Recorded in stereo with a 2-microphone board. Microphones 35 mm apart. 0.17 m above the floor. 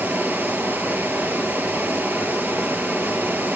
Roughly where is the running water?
Right.